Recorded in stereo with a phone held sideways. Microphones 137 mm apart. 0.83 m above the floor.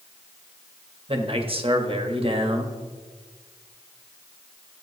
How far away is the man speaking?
About 1.4 m.